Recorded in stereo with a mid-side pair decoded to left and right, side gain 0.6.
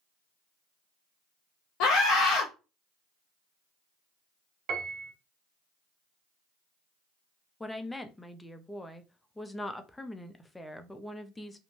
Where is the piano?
50° right, 0.8 m.